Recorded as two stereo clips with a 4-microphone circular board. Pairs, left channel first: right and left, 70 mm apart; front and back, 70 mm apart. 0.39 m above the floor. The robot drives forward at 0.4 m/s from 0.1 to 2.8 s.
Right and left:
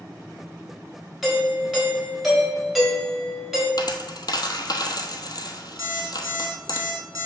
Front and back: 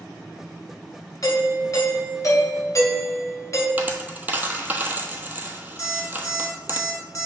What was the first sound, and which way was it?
A doorbell, 5° left.